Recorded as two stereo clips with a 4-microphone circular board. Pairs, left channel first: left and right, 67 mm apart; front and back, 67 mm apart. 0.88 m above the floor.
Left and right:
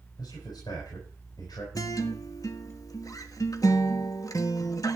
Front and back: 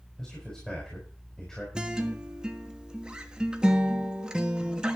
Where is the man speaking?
80° left, 5.5 m.